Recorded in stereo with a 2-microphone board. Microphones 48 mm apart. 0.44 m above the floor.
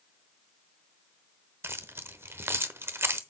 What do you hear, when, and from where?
1.6 s keys jangling: 55° right (ahead or behind), 0.9 m